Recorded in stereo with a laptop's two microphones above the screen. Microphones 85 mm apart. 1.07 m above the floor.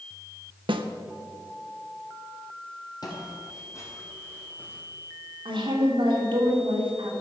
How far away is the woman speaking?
About 2.5 m.